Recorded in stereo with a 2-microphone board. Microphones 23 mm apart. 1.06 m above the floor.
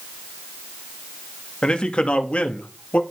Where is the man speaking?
45° left (ahead or behind), 1.9 m; by 3.0 s 75° left (ahead or behind), 2 m.